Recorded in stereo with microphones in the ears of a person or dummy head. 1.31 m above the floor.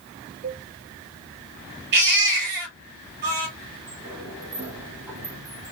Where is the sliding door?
15° right (ahead or behind), 2.5 m.